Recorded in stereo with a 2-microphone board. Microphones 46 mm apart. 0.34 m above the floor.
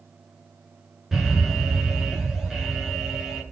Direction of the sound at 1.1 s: 10° right (ahead or behind).